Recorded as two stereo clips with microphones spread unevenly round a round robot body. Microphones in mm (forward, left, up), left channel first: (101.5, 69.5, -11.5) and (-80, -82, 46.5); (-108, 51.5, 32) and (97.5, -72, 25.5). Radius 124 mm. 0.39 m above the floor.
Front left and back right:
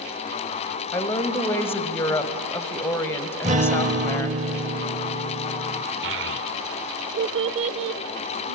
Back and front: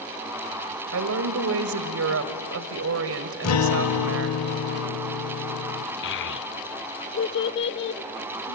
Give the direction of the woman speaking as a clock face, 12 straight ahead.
1 o'clock.